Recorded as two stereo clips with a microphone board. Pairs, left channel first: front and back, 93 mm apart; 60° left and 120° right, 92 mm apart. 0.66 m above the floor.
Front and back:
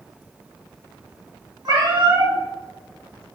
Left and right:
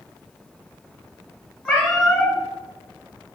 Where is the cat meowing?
140° left, 1.6 m.